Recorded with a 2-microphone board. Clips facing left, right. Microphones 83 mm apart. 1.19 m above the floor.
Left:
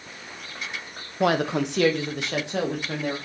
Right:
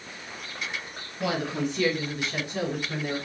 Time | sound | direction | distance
1.2 | a woman speaking | 55° left (ahead or behind) | 1.0 m